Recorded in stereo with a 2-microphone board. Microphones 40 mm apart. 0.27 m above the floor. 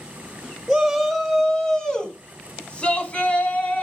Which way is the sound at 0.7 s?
5° right (ahead or behind).